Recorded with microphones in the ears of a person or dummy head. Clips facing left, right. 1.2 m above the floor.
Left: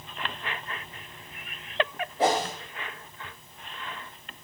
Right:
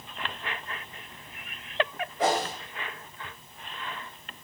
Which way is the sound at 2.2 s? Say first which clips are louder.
Left 2 dB; 25° left (ahead or behind).